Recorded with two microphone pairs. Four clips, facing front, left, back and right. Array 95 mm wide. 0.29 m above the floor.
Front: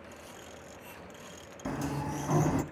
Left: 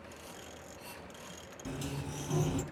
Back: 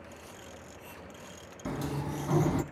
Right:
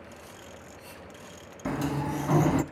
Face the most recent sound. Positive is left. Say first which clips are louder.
# right 11 dB, front 1 dB
turn(degrees=-80)